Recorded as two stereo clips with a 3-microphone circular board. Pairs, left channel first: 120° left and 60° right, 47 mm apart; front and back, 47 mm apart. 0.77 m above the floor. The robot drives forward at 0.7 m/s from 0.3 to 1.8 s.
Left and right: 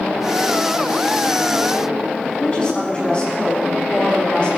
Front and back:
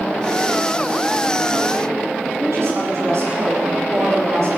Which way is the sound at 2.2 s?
175° right.